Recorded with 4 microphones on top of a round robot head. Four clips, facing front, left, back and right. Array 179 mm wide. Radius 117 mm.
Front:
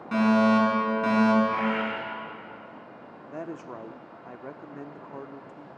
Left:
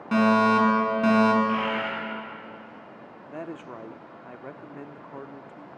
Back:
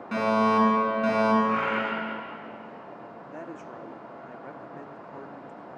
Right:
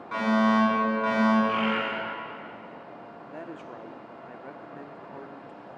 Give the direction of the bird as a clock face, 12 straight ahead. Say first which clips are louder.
Even, even; 5 o'clock.